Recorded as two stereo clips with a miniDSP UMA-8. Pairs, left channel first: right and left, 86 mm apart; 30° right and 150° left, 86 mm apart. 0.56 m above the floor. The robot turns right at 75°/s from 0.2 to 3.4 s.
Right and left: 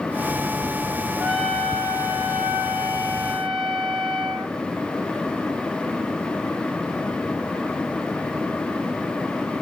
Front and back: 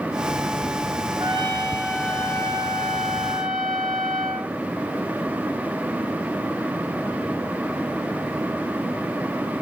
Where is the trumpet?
175° right, 8.5 m; by 4.5 s 10° right, 8.5 m.